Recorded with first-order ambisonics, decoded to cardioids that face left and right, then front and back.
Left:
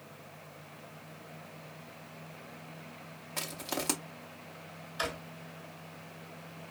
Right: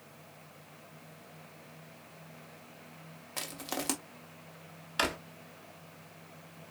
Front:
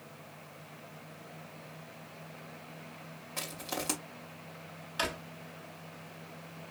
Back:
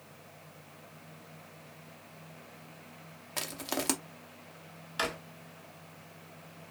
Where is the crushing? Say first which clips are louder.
Left 1 dB, back 2 dB; 170° right, 0.8 m.